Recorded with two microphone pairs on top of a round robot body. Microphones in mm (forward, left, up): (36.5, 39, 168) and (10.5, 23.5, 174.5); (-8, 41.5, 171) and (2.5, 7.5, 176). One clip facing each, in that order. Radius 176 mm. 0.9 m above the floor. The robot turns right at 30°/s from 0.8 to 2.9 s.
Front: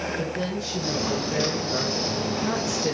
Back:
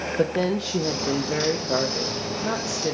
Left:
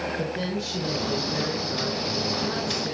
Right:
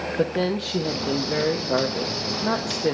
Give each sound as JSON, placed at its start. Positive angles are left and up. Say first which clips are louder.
{"t": 0.2, "sound": "a woman speaking", "louder": "back 5 dB, right 5 dB", "azimuth_deg": -130, "distance_m": 1.1}